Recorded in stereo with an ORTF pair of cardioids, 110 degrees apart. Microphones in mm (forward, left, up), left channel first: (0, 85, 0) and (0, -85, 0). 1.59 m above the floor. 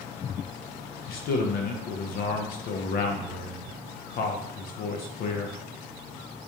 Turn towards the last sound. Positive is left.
turn(degrees=60)